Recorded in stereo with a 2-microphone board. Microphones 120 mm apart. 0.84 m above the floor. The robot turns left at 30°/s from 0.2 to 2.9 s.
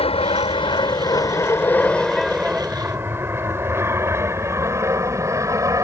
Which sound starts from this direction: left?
An aircraft, at 0.0 s.